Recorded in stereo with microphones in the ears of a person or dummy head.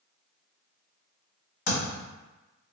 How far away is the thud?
About 1.1 m.